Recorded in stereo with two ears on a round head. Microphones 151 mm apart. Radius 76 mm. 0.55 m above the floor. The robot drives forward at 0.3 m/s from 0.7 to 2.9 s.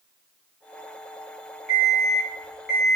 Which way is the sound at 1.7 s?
Centre (ahead or behind).